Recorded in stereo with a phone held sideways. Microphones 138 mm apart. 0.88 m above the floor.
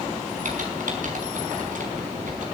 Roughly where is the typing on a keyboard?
Right.